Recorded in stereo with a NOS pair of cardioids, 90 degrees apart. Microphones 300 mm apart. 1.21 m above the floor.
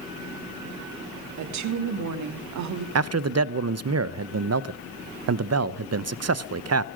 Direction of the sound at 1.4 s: 65° right.